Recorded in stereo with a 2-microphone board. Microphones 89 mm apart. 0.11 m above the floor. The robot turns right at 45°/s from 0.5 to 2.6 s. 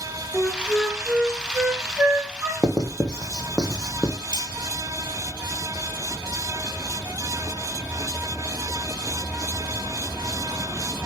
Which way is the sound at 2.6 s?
10° right (ahead or behind).